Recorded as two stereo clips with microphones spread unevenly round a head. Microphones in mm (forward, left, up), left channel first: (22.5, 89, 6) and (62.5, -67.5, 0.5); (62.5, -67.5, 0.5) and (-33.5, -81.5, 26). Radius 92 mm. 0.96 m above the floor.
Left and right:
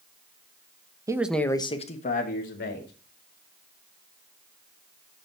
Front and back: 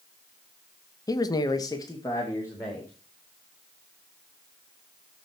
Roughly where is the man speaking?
Ahead.